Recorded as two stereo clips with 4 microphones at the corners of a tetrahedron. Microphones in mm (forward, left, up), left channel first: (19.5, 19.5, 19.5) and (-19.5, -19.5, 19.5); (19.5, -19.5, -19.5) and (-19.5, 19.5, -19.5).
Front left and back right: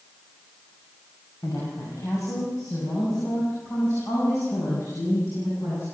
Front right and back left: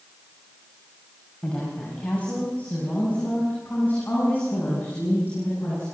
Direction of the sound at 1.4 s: 25° left.